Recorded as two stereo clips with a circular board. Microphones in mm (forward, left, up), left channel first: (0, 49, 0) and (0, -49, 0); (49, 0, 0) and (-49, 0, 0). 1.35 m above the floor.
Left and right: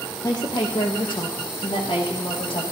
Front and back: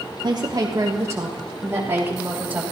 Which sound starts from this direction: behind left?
A woman speaking, at 0.2 s.